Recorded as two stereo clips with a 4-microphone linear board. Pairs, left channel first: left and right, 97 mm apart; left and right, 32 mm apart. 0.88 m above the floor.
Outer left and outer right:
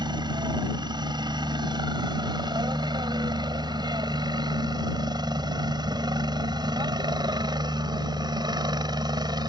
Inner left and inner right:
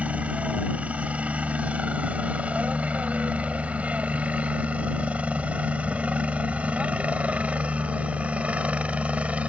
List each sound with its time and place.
0.0 s a helicopter: 45° right (ahead or behind)